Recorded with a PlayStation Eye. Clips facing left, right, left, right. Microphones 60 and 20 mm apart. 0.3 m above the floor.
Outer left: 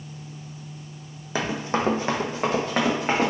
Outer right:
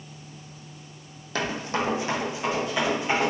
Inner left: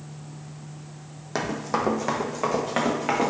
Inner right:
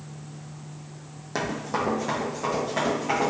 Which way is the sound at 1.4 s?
15° left (ahead or behind).